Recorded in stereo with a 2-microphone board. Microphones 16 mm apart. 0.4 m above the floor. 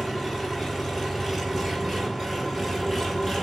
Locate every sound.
0.0 s an engine running: 30° right (ahead or behind), 5 m